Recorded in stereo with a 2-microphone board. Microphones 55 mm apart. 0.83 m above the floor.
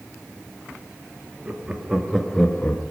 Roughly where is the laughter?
Right.